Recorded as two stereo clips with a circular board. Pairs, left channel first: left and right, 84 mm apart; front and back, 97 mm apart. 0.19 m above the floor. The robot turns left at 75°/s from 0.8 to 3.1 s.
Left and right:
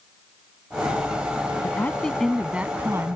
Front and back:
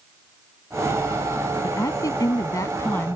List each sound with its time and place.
1.6 s a woman speaking: 45° left; by 3.2 s 65° right